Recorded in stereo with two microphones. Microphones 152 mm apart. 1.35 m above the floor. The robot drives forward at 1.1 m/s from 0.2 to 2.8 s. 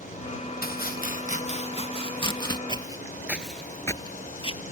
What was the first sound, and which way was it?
Chopping, 80° left.